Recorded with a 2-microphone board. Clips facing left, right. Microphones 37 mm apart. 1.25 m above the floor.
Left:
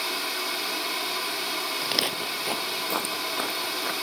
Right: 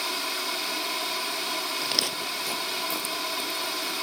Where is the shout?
I don't hear a shout.